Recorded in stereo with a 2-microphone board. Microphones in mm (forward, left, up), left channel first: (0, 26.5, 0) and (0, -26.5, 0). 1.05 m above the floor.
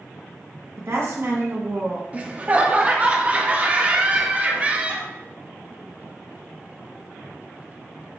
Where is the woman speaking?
60° right (ahead or behind), 1.3 m.